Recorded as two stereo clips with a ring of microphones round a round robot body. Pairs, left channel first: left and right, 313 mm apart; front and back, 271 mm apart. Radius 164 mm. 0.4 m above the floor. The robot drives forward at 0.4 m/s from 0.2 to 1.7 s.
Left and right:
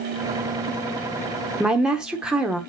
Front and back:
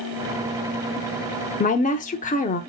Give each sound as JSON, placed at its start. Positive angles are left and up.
{"t": 1.6, "sound": "a woman speaking", "azimuth_deg": -5, "distance_m": 0.9}